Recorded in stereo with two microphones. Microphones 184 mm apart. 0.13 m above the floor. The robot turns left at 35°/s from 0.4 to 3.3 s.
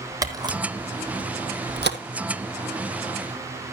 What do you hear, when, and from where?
0.2 s a camera shutter: 20° right (ahead or behind), 1.4 m; by 2.0 s 70° right (ahead or behind), 1.4 m